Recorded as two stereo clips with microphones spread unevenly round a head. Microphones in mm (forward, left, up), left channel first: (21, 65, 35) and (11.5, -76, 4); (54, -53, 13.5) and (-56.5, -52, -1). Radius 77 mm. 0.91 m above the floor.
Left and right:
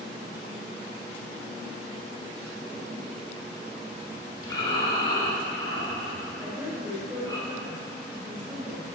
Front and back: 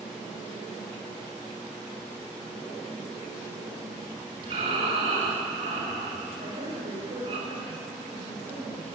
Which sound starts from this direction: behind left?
Breathing, at 4.4 s.